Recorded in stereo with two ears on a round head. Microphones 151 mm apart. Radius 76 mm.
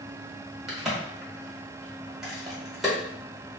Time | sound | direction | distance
0.7 | a crack | centre (ahead or behind) | 1.2 m